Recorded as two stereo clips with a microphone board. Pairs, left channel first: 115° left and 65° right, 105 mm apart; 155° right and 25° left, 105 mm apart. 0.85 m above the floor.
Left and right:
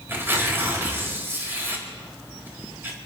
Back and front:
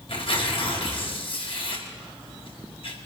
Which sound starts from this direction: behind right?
Tearing paper, at 0.1 s.